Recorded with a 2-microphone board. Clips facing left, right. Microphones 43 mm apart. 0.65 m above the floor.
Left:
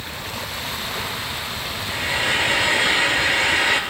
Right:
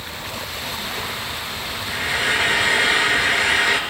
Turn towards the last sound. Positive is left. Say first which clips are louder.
# right 1 dB
turn(degrees=-75)  # may be behind; listen again after turning